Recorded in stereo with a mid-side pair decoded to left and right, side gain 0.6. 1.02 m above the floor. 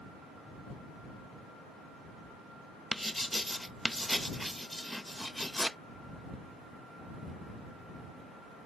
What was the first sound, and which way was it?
Writing, 5° left.